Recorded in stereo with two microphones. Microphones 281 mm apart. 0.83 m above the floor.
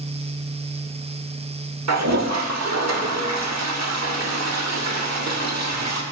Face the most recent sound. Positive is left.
turn(degrees=-70)  # may be behind; listen again after turning